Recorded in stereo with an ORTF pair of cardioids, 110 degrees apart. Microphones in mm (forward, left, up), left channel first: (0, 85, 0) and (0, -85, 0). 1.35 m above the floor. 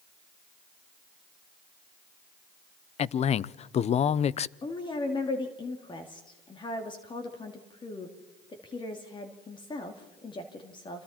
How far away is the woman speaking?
About 2.5 m.